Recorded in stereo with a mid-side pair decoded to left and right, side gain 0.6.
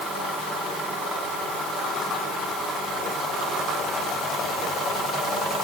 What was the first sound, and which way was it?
Only background noise.